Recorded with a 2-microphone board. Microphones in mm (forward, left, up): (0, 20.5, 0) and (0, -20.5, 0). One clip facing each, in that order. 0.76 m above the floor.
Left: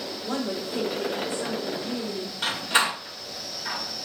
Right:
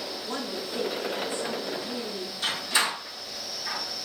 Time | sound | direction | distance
0.2 | a woman speaking | 80° left | 3 m
2.4 | a door slam | 50° left (ahead or behind) | 2.5 m